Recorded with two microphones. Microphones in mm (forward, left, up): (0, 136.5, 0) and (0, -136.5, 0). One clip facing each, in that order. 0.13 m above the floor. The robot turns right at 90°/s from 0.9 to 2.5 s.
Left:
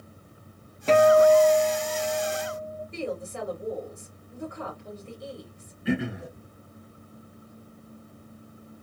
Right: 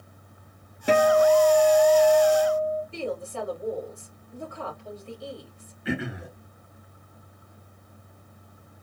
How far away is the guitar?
About 0.6 m.